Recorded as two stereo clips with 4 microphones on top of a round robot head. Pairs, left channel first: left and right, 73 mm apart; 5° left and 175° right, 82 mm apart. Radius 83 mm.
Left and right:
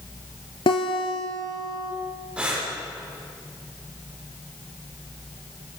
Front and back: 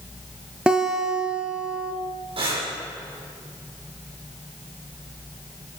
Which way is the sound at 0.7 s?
110° left.